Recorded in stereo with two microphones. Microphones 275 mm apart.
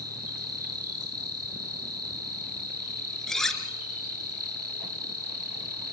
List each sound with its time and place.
0.0 s an insect: 60° right (ahead or behind), 6.5 m
3.3 s cutlery clinking: centre (ahead or behind), 2.5 m